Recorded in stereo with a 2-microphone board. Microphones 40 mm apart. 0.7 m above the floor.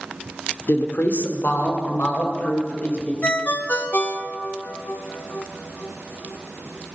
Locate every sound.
0.7 s a woman speaking: 65° left (ahead or behind), 1.5 m; by 3.1 s 50° left (ahead or behind), 4 m
3.2 s a ringtone: 50° left (ahead or behind), 0.9 m